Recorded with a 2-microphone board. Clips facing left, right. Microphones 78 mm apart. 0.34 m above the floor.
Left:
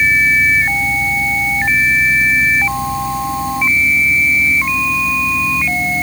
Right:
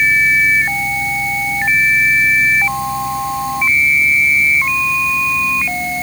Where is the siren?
No siren in this recording.